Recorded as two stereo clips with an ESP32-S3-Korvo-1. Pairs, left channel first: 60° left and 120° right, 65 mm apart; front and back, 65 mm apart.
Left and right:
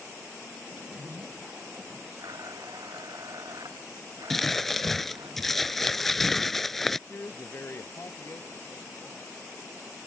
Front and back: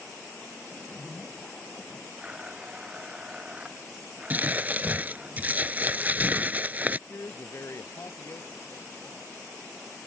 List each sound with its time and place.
0.7 s a zipper: 70° right
2.2 s a blender: 105° right
4.3 s crumpling: 145° left
7.1 s a woman speaking: 25° left